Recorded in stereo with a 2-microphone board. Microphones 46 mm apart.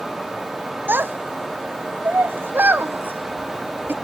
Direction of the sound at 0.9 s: 45° right (ahead or behind).